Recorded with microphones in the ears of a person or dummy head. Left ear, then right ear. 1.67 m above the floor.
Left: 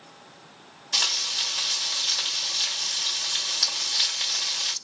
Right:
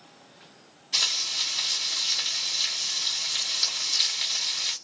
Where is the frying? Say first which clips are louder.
Left 1 dB; 15° left (ahead or behind), 1.6 m.